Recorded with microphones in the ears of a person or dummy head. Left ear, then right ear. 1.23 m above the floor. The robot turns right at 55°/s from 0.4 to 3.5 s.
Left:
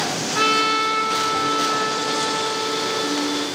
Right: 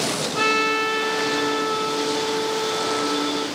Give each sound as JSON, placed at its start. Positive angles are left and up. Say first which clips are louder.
{"t": 0.3, "sound": "a trumpet", "louder": "left 2 dB", "azimuth_deg": 20, "distance_m": 1.2}